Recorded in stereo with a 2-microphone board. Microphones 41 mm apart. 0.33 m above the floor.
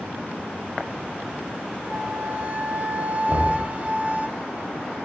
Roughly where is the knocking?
Right.